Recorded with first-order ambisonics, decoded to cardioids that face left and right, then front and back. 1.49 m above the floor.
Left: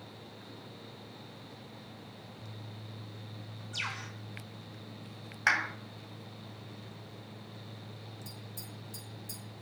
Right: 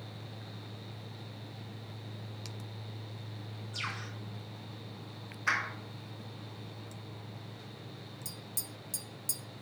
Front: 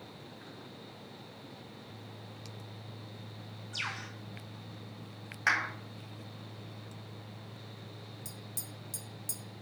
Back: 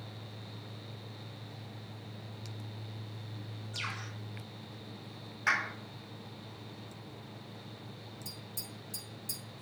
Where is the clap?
60° left, 4 m.